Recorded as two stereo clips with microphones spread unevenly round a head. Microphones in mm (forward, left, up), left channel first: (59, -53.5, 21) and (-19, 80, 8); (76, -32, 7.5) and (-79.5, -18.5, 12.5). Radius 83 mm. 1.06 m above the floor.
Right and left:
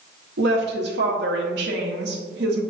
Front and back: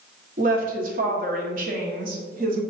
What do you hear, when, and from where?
0.4 s a woman speaking: 130° left, 1.0 m